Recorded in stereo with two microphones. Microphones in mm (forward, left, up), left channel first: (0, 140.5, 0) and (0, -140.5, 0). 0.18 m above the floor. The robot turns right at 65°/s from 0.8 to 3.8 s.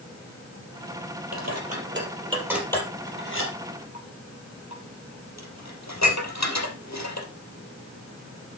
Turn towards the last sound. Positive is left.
turn(degrees=70)  # may be behind; listen again after turning